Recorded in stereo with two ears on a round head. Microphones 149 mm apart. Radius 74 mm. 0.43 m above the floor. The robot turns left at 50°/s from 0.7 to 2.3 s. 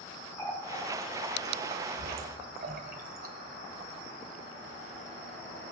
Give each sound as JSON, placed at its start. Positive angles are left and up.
{"t": 0.4, "sound": "a running tap", "side_deg": 10, "distance_m": 1.4}